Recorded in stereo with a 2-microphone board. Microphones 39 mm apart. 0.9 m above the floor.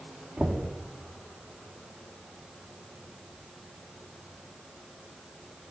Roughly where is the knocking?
Centre.